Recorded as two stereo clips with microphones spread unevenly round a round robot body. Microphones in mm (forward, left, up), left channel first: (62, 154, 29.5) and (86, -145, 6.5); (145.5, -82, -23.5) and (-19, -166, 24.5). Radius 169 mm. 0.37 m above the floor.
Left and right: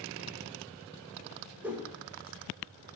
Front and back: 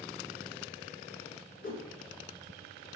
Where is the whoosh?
Straight ahead, 0.6 m.